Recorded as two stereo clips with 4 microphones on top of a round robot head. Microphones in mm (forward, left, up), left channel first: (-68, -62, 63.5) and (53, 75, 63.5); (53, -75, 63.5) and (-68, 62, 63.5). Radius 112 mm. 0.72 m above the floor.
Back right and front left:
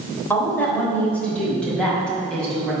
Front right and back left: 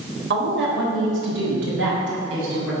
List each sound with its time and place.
0.3 s a woman speaking: 150° left, 3.5 m; by 2.7 s 145° left, 6 m